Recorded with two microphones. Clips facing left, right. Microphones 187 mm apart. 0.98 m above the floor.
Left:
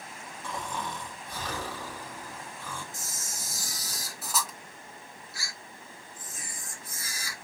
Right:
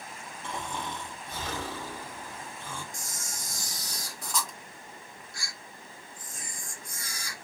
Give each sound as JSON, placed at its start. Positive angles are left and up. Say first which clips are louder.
{"t": 0.4, "sound": "snoring", "louder": "even", "side_deg": -25, "distance_m": 0.9}
{"t": 2.9, "sound": "a camera shutter", "louder": "even", "side_deg": 5, "distance_m": 0.6}